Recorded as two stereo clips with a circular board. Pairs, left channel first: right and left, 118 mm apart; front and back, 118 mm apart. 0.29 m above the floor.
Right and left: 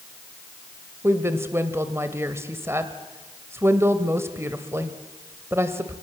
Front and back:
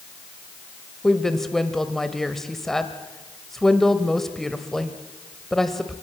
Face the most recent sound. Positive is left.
turn(degrees=80)